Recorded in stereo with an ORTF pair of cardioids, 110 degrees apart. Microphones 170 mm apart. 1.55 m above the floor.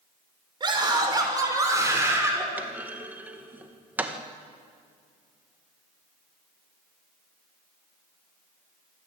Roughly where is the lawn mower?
I don't hear a lawn mower.